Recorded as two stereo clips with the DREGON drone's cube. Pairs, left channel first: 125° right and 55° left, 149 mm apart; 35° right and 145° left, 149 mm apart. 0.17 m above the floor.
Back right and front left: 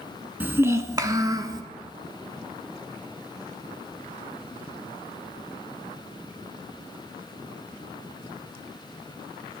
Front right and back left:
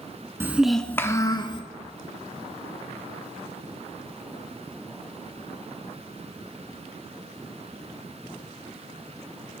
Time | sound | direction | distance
0.4 | a child speaking | 110° left | 0.6 m